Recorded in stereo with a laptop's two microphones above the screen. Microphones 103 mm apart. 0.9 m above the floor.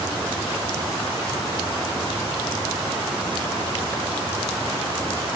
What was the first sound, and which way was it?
Only background noise.